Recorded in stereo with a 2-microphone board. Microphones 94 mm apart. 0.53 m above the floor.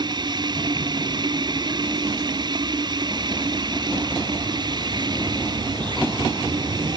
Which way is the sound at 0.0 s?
45° right (ahead or behind).